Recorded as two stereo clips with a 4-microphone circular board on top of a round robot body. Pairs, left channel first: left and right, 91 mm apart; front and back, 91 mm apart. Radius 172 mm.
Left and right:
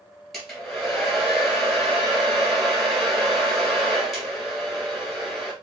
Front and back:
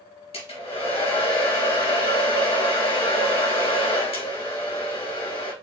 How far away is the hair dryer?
About 2.5 m.